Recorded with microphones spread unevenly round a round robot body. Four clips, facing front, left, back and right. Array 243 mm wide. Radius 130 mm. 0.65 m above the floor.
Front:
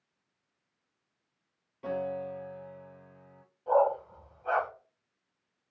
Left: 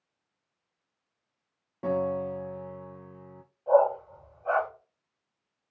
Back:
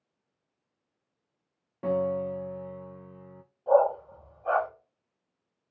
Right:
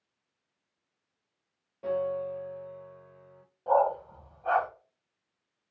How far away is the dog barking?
About 5.5 m.